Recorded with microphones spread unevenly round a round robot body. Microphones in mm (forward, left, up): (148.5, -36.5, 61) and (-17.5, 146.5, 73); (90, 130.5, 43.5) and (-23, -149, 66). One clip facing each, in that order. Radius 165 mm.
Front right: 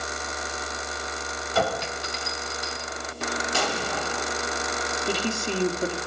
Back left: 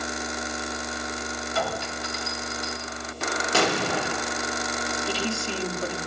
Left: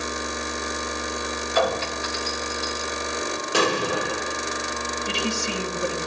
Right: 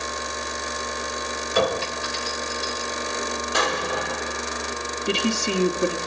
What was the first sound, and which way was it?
A clink, 55° right.